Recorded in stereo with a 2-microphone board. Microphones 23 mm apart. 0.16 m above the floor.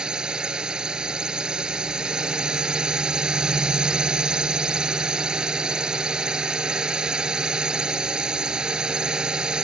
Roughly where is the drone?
Right.